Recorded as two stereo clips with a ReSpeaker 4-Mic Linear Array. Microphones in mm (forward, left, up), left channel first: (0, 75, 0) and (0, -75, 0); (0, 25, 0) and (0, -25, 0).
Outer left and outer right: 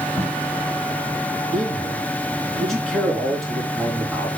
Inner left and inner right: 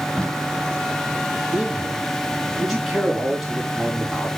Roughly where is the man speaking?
Centre.